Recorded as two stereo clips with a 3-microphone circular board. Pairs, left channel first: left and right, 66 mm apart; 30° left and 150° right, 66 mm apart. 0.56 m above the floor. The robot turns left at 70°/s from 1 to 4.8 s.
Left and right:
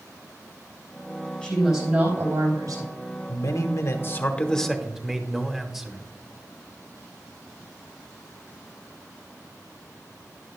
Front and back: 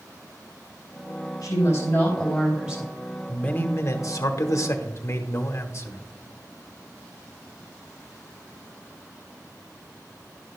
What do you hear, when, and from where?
1.4 s a woman speaking: 15° left, 4.5 m; by 2.9 s 90° right, 4.5 m
3.3 s a man speaking: 100° left, 1.2 m; by 6.0 s 5° right, 1.2 m